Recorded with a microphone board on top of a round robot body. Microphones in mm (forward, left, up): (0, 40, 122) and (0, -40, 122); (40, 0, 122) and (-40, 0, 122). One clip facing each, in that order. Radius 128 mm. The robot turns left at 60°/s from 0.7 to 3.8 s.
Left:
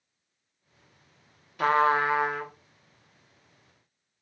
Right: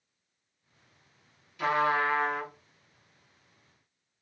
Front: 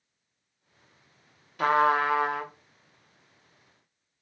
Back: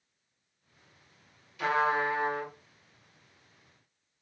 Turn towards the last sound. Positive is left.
turn(degrees=-90)